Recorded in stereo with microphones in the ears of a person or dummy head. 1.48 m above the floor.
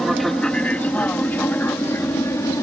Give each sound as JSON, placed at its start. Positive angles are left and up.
{"t": 0.0, "sound": "an aircraft", "side_deg": 5}